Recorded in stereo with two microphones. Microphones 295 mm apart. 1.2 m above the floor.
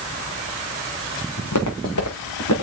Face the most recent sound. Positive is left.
turn(degrees=75)  # may be behind; listen again after turning